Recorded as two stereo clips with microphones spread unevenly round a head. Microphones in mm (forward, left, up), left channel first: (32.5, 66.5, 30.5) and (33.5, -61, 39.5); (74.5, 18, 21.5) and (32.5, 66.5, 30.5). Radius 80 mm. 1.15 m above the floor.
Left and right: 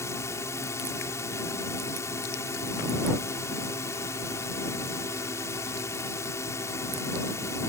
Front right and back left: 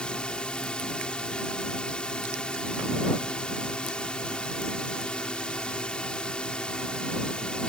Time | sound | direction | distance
0.0 | a drone | 25° left | ?